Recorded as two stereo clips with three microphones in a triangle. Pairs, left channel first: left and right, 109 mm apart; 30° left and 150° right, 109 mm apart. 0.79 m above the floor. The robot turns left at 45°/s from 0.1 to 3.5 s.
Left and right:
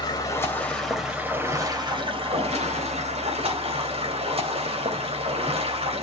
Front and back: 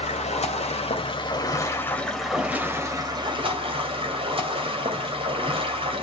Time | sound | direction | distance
0.0 | running water | 35° left | 2.5 m